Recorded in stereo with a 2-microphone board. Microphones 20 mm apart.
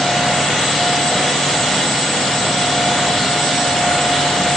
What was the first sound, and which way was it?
Only background noise.